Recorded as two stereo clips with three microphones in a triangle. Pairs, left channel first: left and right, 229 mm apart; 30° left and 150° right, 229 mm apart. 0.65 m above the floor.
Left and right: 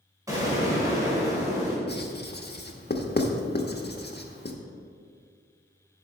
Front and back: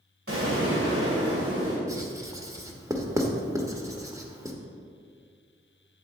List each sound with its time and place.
0.3 s an explosion: 165° right, 3 m
1.9 s writing: 135° left, 1.0 m